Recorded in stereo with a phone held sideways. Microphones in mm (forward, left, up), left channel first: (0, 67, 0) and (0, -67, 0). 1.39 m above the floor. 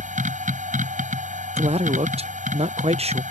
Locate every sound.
0.0 s a machine running: 75° right (ahead or behind)
1.6 s a man speaking: 50° right (ahead or behind)